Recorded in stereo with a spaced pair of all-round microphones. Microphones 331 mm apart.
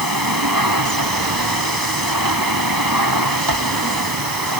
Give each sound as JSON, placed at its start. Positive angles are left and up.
{"t": 0.0, "sound": "a machine running", "side_deg": -80}